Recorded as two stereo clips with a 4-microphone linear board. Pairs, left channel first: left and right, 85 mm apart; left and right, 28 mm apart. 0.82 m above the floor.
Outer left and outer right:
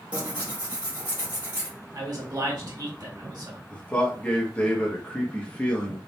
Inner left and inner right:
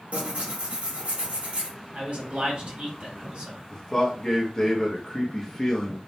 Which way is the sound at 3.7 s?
15° left (ahead or behind).